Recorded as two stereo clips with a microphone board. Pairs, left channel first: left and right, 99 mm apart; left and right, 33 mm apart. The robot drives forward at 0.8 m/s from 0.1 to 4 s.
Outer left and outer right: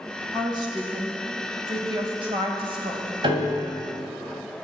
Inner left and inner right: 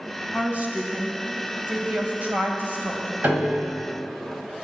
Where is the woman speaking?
50° right (ahead or behind), 3 m; by 3.1 s 60° right (ahead or behind), 2.5 m.